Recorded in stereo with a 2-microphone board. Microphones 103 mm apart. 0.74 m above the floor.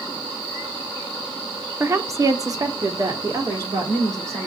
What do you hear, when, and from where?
1.8 s a woman speaking: 20° right (ahead or behind), 0.6 m; by 4.5 s 30° right (ahead or behind), 2.0 m